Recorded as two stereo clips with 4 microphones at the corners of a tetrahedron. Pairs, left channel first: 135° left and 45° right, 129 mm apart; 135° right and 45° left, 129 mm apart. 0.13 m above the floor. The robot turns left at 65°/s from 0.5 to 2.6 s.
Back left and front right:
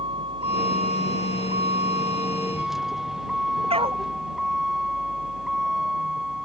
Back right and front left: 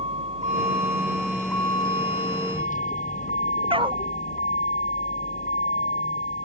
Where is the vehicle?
5° left; by 6.5 s 130° right.